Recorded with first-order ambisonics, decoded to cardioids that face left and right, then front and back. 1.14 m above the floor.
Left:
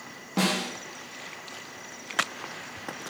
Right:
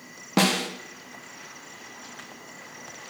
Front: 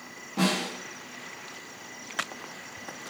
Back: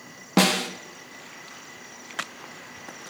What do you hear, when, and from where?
0.4 s a snare drum: 150° right, 0.9 m